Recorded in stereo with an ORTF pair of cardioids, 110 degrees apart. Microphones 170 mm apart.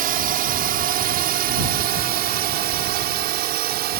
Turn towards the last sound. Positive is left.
turn(degrees=-75)